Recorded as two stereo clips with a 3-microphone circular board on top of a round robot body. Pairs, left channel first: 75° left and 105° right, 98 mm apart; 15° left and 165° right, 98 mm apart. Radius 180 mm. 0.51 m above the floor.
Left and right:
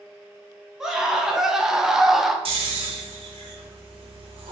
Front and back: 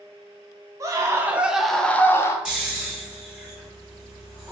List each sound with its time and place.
0.8 s a scream: 175° left, 0.8 m; by 2.4 s 20° right, 0.8 m
2.5 s snoring: 80° right, 0.5 m